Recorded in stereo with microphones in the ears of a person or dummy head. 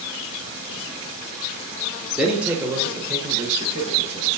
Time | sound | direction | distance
2.2 | a man speaking | 5° right (ahead or behind) | 0.8 m